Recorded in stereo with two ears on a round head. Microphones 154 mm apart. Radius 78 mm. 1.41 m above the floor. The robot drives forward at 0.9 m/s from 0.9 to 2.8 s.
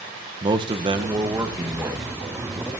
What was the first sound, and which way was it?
A man speaking, 25° right (ahead or behind).